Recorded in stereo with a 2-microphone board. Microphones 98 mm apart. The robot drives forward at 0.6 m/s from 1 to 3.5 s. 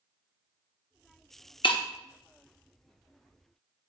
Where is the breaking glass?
60° left (ahead or behind), 0.8 m; by 1.8 s 55° left (ahead or behind), 0.8 m.